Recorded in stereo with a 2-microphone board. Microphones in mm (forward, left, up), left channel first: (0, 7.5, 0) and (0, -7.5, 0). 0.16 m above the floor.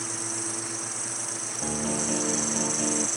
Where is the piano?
30° right (ahead or behind).